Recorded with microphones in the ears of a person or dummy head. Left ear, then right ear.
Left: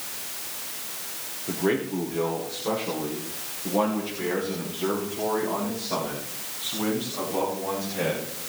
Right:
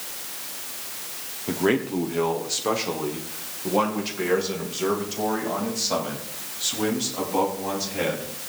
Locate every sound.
1.5 s a man speaking: 85° right, 1.0 m; by 8.3 s 55° right (ahead or behind), 4.5 m